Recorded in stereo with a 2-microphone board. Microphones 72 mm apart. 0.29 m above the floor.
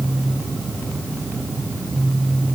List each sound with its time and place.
Only background noise.